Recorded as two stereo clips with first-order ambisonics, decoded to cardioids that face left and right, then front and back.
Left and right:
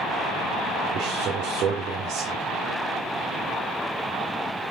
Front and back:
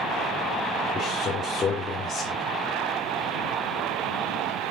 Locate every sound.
0.9 s a man speaking: 60° right, 2.0 m